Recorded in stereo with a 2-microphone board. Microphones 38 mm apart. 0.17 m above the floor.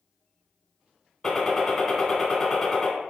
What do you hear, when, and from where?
1.2 s a gunshot: 10° left (ahead or behind), 1.1 m